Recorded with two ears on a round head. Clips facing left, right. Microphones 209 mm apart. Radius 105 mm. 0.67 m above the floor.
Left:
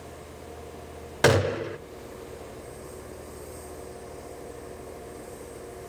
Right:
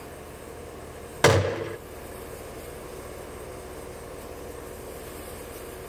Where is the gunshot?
Centre (ahead or behind), 0.7 m.